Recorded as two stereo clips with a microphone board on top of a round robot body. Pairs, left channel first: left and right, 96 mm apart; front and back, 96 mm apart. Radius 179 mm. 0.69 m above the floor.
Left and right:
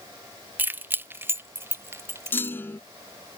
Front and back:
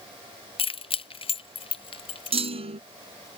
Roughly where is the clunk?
Behind.